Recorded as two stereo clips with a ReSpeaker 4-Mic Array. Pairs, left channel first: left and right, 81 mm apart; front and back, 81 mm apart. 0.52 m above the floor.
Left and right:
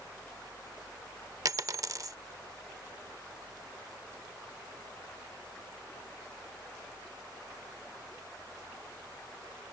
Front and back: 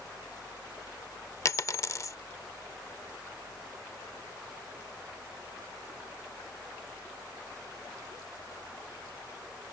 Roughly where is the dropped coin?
Ahead right.